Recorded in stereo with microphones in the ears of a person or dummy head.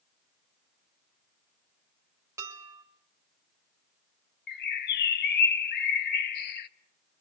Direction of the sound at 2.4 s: 15° right (ahead or behind).